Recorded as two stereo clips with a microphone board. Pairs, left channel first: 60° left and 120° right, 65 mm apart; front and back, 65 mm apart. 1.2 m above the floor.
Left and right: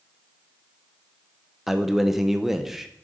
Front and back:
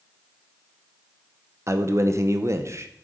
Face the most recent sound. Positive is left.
turn(degrees=155)